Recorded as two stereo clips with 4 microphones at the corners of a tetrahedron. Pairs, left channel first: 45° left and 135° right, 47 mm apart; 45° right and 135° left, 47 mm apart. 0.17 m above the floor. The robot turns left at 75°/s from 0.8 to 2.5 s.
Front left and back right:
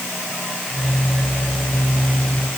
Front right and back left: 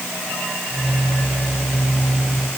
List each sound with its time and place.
Only background noise.